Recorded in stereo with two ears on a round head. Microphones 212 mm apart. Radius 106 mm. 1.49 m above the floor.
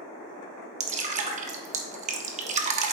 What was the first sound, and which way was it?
Dripping, 30° right (ahead or behind).